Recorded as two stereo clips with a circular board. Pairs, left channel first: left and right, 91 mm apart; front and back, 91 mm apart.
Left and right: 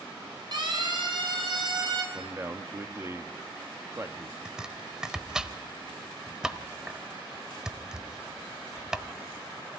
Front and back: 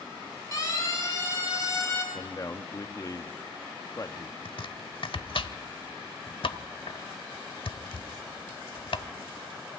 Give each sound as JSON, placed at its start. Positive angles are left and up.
{"t": 0.5, "sound": "a siren", "azimuth_deg": -55, "distance_m": 7.5}
{"t": 2.1, "sound": "a man speaking", "azimuth_deg": -35, "distance_m": 1.3}
{"t": 4.5, "sound": "chopping", "azimuth_deg": -10, "distance_m": 0.9}